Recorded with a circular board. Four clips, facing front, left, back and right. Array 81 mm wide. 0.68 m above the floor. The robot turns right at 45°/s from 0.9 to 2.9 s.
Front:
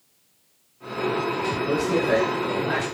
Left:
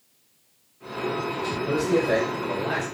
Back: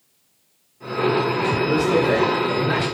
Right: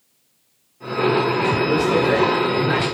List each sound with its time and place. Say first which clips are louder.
1.6 s a man speaking: right 1 dB, back 3 dB; 140° right, 2.5 m; by 2.8 s 85° right, 2.5 m